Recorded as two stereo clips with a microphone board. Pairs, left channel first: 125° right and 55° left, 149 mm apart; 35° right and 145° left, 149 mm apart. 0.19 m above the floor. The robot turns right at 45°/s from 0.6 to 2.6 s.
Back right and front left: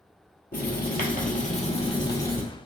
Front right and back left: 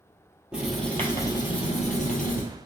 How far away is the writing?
About 1.0 m.